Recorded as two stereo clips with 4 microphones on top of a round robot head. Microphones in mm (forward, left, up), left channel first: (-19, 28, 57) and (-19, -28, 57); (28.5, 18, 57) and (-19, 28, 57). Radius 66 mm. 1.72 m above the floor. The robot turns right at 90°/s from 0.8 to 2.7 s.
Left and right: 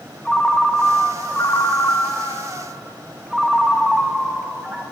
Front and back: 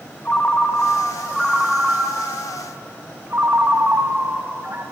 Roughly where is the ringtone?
Ahead.